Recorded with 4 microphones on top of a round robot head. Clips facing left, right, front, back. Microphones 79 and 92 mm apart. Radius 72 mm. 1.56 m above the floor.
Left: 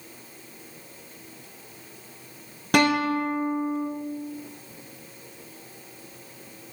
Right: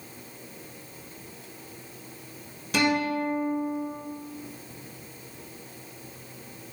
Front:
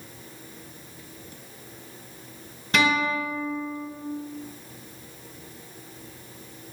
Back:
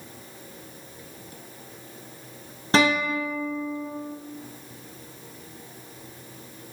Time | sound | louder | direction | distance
2.7 | a guitar | left 4 dB, back 2 dB | 120° left | 1.1 m